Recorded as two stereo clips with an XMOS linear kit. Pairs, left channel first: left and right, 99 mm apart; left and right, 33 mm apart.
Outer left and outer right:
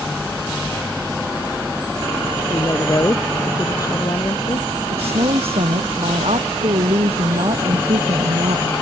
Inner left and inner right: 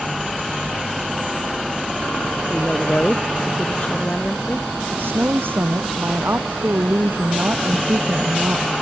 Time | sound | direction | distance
2.5 | a woman speaking | 35° left (ahead or behind) | ?
4.9 | a woman speaking | 80° right | ?